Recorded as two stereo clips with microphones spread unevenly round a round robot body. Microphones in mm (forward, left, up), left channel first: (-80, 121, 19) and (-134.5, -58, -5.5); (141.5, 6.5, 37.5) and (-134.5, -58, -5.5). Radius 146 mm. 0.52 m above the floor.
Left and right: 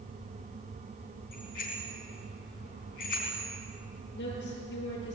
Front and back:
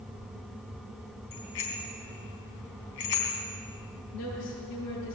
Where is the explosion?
I don't hear an explosion.